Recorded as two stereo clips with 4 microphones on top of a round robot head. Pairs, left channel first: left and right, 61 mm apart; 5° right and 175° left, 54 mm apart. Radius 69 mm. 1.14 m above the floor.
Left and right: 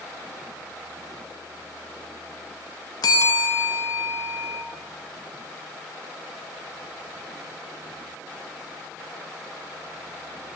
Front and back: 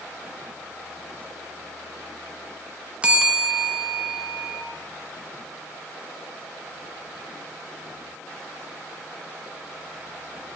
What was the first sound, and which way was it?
A bell, 105° left.